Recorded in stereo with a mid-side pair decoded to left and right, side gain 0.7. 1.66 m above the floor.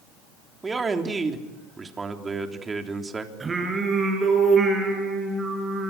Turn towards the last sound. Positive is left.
turn(degrees=-25)